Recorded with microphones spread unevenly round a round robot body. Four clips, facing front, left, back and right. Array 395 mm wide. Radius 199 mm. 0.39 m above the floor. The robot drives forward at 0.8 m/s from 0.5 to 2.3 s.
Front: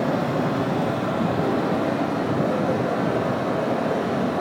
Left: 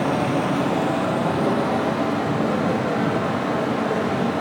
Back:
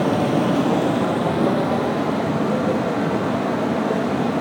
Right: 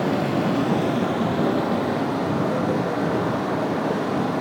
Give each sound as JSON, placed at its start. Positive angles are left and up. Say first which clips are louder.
{"t": 0.0, "sound": "running water", "louder": "left 1 dB, back 4 dB", "azimuth_deg": -175, "distance_m": 1.3}